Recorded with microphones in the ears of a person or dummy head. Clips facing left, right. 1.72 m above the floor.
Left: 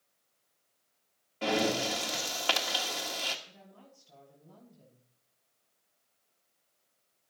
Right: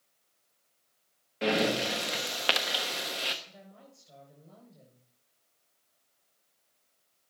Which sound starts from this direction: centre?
Breathing, at 1.4 s.